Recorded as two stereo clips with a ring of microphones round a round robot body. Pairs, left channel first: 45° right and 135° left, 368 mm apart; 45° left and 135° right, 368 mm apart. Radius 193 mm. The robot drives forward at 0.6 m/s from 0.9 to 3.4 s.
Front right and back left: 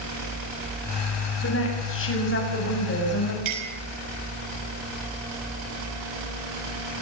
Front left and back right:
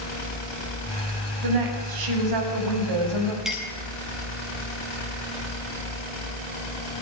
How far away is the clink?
About 7.5 m.